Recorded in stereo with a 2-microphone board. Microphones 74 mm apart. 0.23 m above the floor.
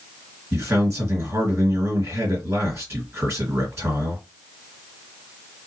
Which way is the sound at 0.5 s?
40° right (ahead or behind).